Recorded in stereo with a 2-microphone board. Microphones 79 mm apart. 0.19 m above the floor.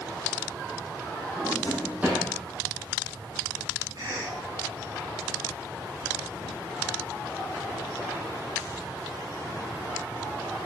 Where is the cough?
65° right (ahead or behind), 4 m.